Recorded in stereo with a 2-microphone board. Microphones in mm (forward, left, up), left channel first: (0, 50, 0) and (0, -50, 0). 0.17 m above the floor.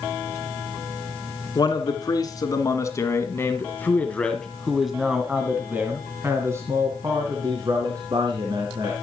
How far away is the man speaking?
About 2.5 m.